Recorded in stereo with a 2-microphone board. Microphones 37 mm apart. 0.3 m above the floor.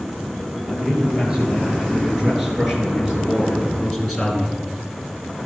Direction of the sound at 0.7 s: 25° right (ahead or behind).